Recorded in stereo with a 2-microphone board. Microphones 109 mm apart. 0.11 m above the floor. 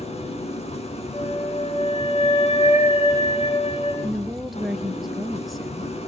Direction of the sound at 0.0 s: 80° left.